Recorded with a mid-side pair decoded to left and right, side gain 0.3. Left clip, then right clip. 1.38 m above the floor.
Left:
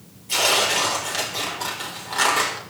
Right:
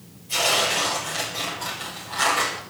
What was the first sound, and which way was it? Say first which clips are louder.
Tearing paper: left 2 dB; 70° left.